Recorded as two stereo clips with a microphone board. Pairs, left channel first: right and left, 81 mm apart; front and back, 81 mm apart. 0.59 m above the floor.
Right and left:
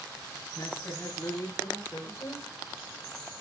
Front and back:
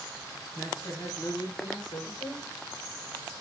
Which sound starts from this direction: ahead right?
A man speaking, at 0.6 s.